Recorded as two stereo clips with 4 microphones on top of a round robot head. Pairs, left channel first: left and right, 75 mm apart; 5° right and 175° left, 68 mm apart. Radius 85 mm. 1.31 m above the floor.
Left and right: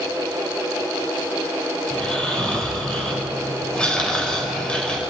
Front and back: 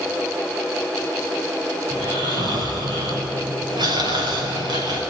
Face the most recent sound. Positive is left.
turn(degrees=170)